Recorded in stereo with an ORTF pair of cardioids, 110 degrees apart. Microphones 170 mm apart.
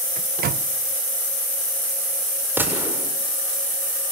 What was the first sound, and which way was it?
A microwave, 65° right.